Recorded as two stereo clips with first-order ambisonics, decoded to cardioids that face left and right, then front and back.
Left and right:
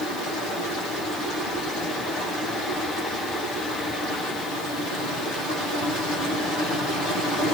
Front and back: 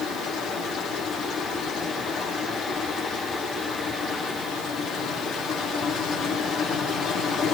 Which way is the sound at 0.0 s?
50° left.